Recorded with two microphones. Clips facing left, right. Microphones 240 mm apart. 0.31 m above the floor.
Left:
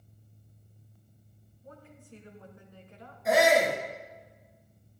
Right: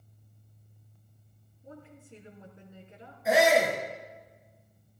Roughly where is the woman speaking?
Right.